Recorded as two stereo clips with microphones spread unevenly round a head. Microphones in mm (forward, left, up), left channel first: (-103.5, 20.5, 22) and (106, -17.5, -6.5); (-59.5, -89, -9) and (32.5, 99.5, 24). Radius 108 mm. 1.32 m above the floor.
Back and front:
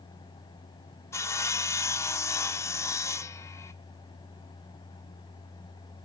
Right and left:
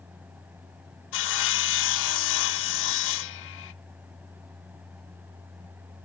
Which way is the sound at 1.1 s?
125° right.